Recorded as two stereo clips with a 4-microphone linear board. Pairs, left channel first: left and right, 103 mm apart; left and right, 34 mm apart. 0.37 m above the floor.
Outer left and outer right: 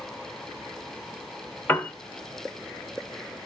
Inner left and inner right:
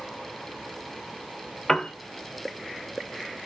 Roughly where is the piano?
Left.